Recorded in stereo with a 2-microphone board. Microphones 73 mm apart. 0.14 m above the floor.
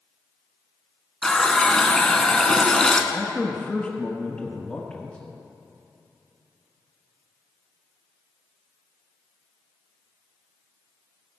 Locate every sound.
1.2 s a running tap: 10° left (ahead or behind), 0.8 m
3.1 s a man speaking: 15° left (ahead or behind), 1.2 m